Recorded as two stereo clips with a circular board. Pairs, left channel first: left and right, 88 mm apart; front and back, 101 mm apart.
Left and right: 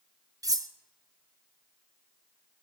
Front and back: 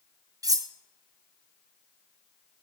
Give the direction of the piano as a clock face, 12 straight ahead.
No piano in this recording.